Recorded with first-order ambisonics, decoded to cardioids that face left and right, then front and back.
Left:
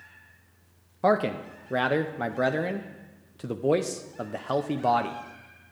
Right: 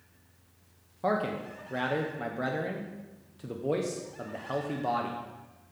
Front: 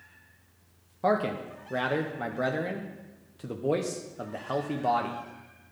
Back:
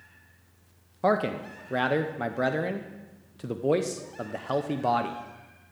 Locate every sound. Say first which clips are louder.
1.0 s a man speaking: left 6 dB, back 1 dB; 115° left, 0.5 m